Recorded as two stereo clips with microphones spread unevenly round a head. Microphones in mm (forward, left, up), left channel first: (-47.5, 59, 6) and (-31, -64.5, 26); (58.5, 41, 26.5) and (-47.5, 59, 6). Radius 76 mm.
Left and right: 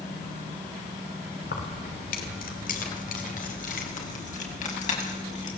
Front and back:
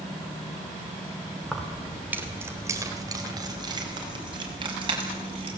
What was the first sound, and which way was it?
Keys jangling, 75° left.